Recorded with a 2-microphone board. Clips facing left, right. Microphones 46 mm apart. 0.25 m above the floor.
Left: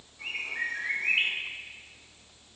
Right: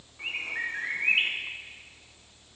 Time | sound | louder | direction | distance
0.2 | a bird | right 1 dB | 20° right (ahead or behind) | 1.5 m